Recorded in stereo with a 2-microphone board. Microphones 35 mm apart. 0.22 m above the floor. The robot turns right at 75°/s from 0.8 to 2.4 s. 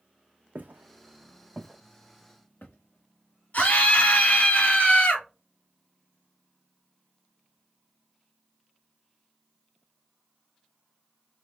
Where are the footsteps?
60° right (ahead or behind), 0.9 m; by 3.8 s 75° left (ahead or behind), 1.8 m.